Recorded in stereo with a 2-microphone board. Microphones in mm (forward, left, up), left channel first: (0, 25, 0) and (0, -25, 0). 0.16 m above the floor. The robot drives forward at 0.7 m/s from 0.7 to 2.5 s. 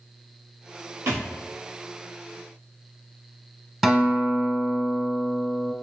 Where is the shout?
No shout in this recording.